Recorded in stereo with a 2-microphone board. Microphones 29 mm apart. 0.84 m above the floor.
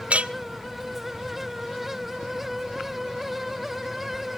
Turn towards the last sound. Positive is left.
turn(degrees=-50)  # may be behind; listen again after turning